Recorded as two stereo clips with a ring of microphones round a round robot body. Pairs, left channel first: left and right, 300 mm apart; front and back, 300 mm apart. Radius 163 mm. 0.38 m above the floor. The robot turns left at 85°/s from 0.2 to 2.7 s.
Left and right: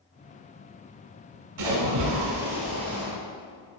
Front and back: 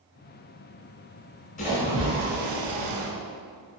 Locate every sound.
1.6 s a splash: 70° right, 1.7 m; by 3.1 s 165° right, 1.7 m